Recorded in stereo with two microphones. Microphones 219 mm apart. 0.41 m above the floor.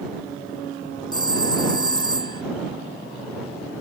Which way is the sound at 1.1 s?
20° left (ahead or behind).